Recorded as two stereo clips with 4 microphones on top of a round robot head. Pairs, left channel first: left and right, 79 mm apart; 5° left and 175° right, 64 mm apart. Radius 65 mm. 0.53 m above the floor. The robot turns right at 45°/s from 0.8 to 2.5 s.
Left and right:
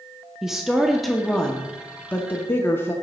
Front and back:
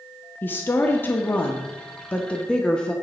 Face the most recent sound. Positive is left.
turn(degrees=65)